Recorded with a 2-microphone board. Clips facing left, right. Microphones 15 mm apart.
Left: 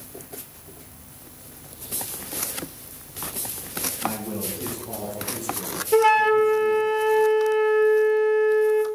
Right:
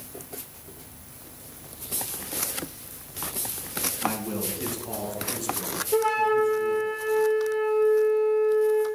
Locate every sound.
4.0 s a man speaking: 30° right (ahead or behind), 1.6 m; by 6.9 s 15° right (ahead or behind), 2 m
5.9 s a flute: 65° left (ahead or behind), 0.9 m